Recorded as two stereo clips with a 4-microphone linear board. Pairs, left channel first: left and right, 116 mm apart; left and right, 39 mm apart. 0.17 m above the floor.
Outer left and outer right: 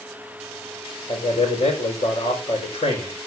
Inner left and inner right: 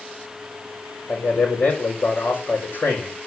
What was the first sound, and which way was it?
A man speaking, 55° left (ahead or behind).